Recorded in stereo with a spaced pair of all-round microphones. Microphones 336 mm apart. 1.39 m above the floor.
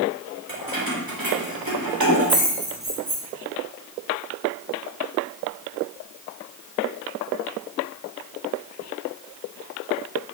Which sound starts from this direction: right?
Keys jangling, at 0.5 s.